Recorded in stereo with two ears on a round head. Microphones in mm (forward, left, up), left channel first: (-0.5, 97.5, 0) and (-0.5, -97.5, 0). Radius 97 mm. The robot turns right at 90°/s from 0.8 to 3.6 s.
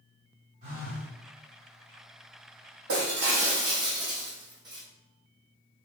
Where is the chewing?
No chewing in this recording.